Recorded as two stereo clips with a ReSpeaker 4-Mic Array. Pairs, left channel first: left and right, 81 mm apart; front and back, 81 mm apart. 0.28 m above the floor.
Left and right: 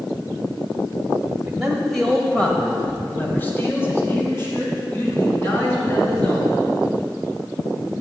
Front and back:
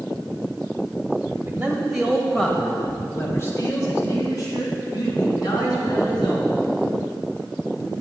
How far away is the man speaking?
About 1.3 m.